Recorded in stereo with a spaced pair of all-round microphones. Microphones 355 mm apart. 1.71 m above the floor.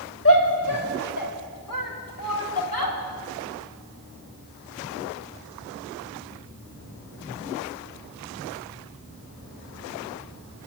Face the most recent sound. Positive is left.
turn(degrees=75)  # may be behind; listen again after turning